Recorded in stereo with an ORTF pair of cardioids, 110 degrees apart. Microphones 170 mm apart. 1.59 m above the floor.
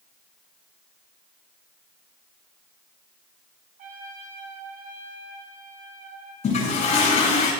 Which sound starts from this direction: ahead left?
A toilet flushing, at 6.4 s.